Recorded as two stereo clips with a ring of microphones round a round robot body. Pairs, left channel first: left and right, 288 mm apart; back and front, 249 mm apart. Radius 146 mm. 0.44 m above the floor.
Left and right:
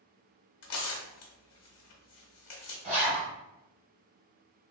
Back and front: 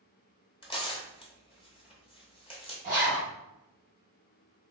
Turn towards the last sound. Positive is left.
turn(degrees=-140)